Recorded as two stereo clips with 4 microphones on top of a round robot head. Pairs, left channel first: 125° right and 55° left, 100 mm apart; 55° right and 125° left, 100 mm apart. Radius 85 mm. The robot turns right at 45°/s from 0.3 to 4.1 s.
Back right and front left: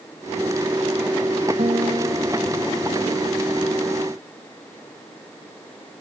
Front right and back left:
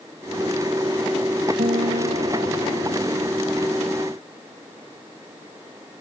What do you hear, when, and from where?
1.6 s a guitar: 95° left; by 3.4 s straight behind